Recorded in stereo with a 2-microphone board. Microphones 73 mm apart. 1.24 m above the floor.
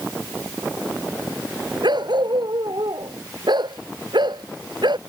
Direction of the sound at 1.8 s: 85° right.